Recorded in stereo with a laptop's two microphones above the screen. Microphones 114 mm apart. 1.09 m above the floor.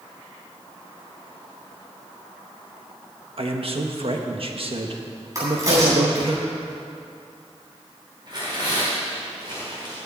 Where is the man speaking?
55° right (ahead or behind), 1.4 m.